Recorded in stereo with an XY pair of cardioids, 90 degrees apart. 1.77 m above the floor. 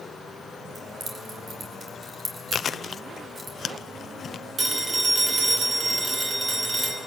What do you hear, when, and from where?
0.8 s keys jangling: 50° right, 5 m; by 3.5 s 30° right, 4.5 m
2.5 s chewing: 50° left, 0.8 m
4.6 s a phone ringing: 35° right, 4 m